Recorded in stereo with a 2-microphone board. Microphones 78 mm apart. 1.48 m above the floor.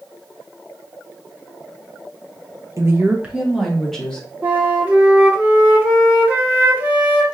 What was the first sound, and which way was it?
A woman speaking, 40° right (ahead or behind).